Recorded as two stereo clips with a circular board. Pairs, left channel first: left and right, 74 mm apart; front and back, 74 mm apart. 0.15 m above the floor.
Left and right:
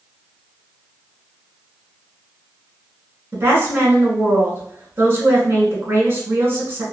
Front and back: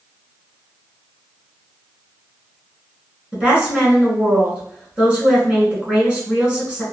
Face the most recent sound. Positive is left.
turn(degrees=-110)